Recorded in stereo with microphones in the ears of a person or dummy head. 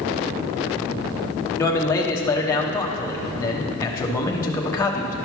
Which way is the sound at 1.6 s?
20° left (ahead or behind).